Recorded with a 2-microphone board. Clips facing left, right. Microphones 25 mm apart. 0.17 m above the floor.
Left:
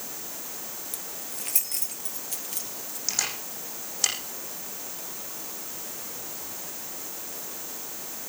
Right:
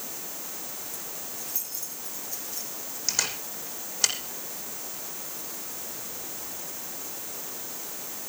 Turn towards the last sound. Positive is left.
turn(degrees=-10)  # may be behind; listen again after turning